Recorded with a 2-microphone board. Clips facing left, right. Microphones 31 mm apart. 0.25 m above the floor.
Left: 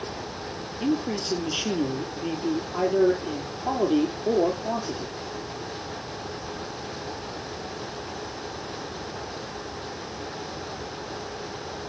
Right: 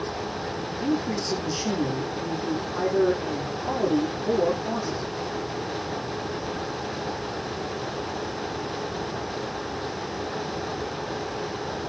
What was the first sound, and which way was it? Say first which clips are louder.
A man speaking: left 1 dB; 40° left (ahead or behind).